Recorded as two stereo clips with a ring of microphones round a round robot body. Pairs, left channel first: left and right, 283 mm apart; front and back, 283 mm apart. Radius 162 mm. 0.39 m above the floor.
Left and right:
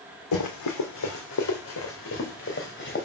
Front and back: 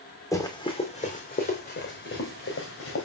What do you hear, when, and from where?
0.3 s running footsteps: 80° left, 2 m; by 3.0 s 35° left, 3 m